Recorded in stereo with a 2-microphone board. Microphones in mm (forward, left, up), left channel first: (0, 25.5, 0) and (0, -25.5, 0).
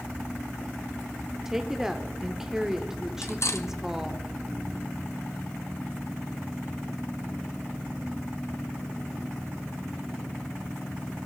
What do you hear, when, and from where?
1.4 s a woman speaking: 10° right (ahead or behind), 0.8 m
3.2 s cutlery clinking: 60° left (ahead or behind), 0.8 m